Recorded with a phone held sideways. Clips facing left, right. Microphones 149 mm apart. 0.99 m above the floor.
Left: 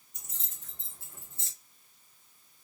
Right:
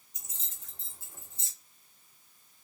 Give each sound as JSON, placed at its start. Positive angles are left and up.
{"t": 0.1, "sound": "keys jangling", "side_deg": 65, "distance_m": 2.5}